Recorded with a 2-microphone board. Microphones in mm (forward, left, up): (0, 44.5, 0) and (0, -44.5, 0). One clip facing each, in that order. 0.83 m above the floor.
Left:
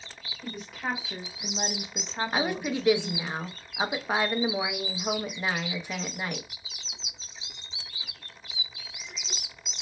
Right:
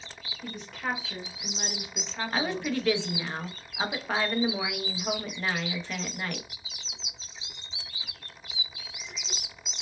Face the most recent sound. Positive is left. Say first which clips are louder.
# even
turn(degrees=10)  # may be behind; listen again after turning